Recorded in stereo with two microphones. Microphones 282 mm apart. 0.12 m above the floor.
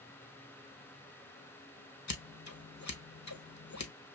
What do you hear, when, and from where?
2.1 s scissors: 70° left (ahead or behind), 0.8 m